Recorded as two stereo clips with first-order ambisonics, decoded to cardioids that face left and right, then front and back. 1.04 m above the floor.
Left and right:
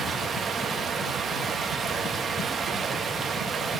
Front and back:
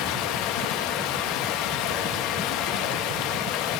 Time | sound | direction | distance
0.0 | running water | 20° right | 1.0 m